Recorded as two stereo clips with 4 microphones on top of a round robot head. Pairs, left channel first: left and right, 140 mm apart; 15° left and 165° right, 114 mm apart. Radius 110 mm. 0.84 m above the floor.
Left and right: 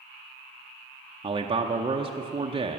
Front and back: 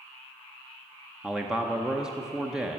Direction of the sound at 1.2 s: 85° right.